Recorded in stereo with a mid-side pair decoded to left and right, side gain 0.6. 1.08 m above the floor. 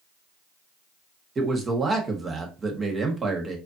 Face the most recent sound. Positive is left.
turn(degrees=-30)